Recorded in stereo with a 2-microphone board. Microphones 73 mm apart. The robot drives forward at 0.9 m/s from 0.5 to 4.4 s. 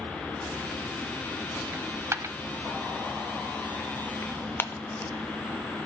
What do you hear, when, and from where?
1.7 s a dropped coin: 25° right (ahead or behind), 1.1 m; by 2.4 s 50° right (ahead or behind), 0.7 m
4.2 s tearing paper: 25° left (ahead or behind), 0.8 m; by 5.1 s 30° left (ahead or behind), 0.7 m